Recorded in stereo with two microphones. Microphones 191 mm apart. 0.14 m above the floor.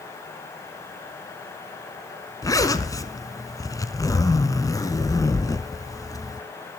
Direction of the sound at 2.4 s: 20° left (ahead or behind).